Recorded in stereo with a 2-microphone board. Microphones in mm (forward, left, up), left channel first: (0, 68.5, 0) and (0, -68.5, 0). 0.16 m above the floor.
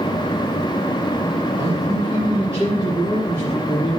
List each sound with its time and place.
1.6 s a man speaking: 25° right (ahead or behind), 4.5 m; by 4.0 s 10° right (ahead or behind), 3 m